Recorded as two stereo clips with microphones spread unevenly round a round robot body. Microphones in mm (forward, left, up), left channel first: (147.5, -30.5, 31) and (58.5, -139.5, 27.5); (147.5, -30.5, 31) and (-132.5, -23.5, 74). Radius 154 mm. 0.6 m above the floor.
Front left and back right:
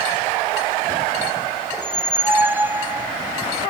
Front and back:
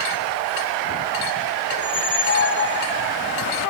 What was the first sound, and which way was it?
A squeak, 55° right.